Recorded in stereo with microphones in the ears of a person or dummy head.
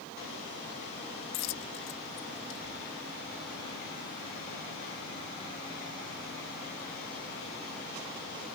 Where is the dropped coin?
50° left (ahead or behind).